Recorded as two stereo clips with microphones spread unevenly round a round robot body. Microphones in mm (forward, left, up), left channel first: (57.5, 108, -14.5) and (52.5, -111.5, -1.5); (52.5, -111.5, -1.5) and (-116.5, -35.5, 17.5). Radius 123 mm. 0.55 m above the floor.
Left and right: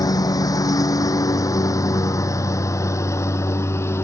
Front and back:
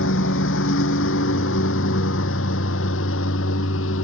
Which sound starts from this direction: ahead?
A lawn mower, at 0.0 s.